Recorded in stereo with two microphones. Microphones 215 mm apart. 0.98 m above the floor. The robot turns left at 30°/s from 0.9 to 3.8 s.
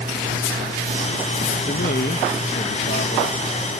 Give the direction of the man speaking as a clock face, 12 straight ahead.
8 o'clock.